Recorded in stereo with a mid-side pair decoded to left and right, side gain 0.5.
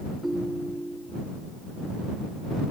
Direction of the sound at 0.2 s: 5° right.